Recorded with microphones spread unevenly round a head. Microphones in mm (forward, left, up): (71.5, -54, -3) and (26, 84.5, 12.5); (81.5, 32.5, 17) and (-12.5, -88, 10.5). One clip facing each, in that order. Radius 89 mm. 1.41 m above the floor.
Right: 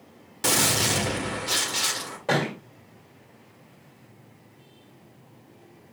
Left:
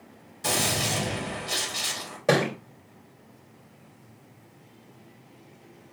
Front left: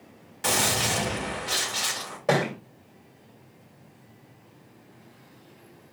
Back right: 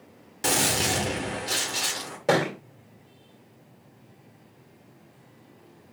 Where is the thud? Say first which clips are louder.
Left 3 dB, back right 1 dB; 165° left, 2 m.